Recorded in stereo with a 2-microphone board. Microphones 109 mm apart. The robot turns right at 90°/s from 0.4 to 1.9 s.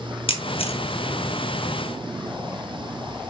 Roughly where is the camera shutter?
Left.